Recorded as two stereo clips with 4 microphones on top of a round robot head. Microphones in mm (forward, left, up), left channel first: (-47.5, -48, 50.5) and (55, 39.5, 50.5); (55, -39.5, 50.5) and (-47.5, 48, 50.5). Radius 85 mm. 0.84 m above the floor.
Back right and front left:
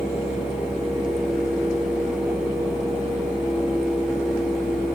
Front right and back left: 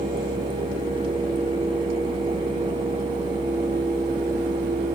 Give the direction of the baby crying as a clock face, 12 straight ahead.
No baby crying in this recording.